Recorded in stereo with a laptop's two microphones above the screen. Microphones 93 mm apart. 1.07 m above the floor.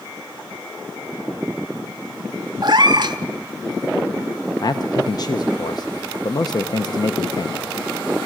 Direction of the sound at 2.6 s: 50° right (ahead or behind).